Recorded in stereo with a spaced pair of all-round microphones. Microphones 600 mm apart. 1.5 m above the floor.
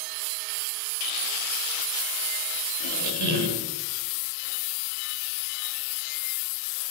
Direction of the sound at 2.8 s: 45° right (ahead or behind).